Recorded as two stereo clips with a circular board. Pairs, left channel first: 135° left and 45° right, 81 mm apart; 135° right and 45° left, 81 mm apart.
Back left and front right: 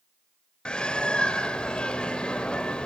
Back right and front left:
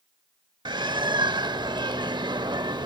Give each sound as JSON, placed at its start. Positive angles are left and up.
{"t": 0.7, "sound": "a bird", "azimuth_deg": 55, "distance_m": 0.8}